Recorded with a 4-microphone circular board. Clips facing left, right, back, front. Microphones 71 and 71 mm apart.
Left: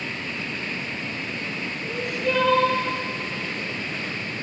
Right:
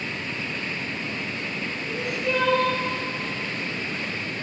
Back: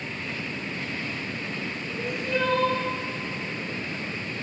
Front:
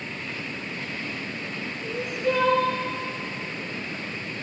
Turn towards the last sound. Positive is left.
turn(degrees=0)